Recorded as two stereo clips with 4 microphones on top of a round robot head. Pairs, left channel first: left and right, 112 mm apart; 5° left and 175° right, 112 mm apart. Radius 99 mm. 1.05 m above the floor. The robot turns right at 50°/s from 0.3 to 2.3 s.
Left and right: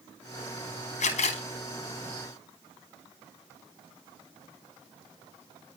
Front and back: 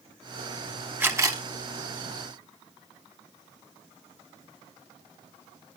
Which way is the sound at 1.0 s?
110° left.